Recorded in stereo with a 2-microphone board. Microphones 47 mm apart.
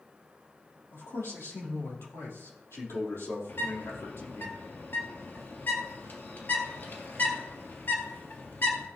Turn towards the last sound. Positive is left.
turn(degrees=50)  # may be behind; listen again after turning